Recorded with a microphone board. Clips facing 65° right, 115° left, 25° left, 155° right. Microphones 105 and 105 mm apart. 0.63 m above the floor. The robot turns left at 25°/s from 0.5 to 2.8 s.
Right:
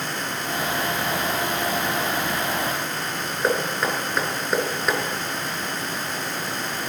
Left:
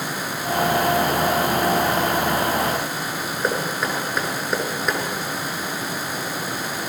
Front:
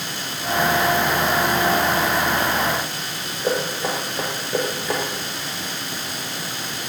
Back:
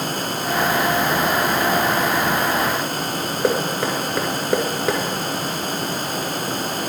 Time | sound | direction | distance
3.4 | knocking | 155° right | 5 m